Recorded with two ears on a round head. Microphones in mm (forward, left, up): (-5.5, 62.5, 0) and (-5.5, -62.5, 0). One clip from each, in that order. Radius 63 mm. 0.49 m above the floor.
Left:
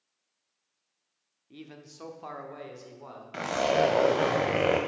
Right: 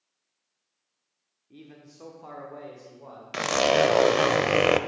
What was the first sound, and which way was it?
A man speaking, 30° left (ahead or behind).